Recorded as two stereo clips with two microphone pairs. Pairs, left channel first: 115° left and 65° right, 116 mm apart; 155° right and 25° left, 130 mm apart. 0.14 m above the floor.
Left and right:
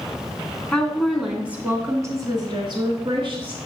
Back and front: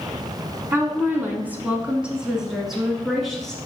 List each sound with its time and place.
0.7 s a woman speaking: 55° left, 1.1 m; by 3.6 s 65° right, 1.6 m